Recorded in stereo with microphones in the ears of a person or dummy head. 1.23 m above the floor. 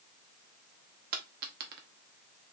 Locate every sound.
1.1 s a dropped coin: 50° right (ahead or behind), 1.2 m